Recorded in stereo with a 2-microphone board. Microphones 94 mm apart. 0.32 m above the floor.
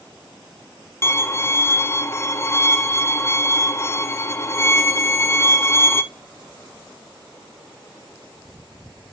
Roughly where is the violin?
Left.